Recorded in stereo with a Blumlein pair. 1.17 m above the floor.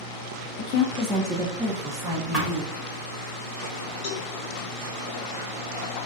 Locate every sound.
0.6 s a woman speaking: 40° left, 0.5 m; by 2.8 s 40° right, 1.2 m
2.3 s a thud: 5° left, 1.3 m
4.0 s a cowbell: 40° left, 0.9 m